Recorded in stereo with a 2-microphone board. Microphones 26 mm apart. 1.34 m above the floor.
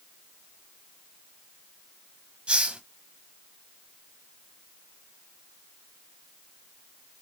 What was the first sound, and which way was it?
A hiss, 35° right (ahead or behind).